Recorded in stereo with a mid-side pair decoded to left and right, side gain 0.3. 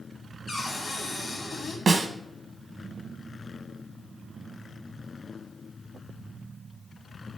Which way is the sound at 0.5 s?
60° left.